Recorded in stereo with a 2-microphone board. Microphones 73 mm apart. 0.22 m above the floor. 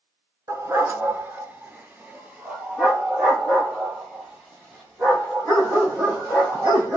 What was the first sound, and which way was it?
A dog barking, 45° right (ahead or behind).